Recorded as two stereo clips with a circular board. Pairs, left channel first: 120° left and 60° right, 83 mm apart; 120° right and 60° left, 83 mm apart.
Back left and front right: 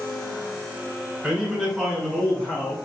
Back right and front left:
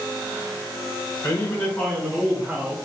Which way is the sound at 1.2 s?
135° right.